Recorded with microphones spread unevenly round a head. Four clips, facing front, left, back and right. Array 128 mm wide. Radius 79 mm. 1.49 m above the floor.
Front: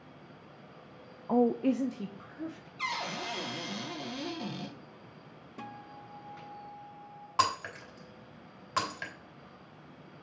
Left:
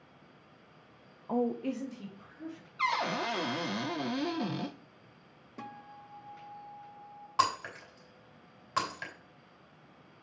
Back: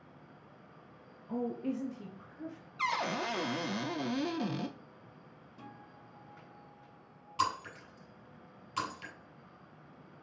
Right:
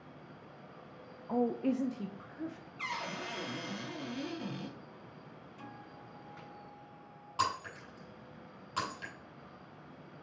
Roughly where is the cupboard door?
Behind left.